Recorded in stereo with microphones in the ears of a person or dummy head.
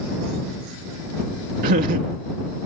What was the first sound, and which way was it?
Laughter, 45° right (ahead or behind).